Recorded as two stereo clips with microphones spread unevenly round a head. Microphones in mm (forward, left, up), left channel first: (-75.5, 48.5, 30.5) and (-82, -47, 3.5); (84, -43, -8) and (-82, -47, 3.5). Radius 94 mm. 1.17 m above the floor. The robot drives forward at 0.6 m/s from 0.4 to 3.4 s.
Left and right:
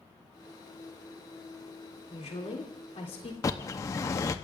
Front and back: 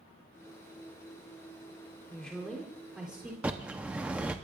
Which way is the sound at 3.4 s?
105° left.